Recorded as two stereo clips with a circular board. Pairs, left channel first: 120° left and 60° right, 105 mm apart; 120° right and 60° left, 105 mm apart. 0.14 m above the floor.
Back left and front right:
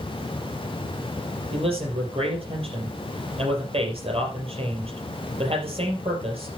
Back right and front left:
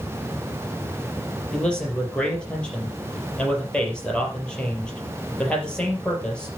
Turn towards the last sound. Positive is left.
turn(degrees=-40)